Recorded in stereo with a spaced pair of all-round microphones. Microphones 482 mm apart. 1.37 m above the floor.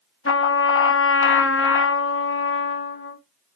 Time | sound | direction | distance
0.2 | a trumpet | 30° left (ahead or behind) | 0.7 m